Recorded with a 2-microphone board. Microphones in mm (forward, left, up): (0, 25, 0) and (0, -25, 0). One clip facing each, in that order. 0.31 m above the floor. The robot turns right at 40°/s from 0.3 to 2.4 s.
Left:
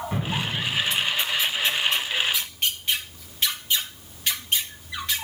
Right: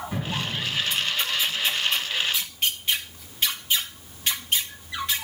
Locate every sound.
0.1 s an explosion: 40° left, 3 m; by 1.1 s 70° left, 3 m